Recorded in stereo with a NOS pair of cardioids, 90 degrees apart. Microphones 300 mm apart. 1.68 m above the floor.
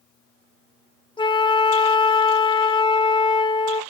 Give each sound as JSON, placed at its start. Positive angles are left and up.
{"t": 1.2, "sound": "a flute", "azimuth_deg": 15, "distance_m": 0.7}